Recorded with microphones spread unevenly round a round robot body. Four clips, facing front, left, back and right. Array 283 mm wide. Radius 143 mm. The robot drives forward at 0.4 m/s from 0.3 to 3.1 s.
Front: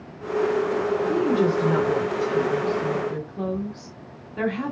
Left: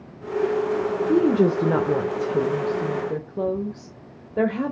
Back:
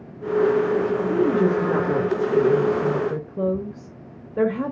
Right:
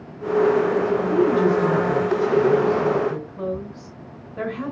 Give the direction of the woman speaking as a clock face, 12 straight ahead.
9 o'clock.